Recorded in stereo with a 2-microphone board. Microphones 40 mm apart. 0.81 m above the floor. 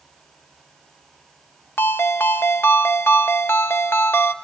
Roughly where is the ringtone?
Left.